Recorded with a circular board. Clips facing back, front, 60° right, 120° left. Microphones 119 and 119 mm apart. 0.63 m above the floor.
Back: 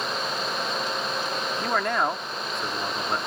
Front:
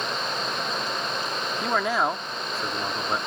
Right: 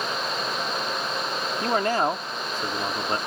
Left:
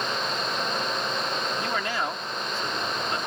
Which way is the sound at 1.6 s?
85° right.